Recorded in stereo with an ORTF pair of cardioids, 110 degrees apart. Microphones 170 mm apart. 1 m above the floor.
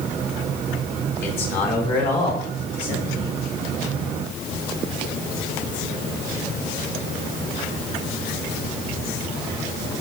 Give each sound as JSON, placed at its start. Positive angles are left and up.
{"t": 1.2, "sound": "a man speaking", "azimuth_deg": 65, "distance_m": 4.0}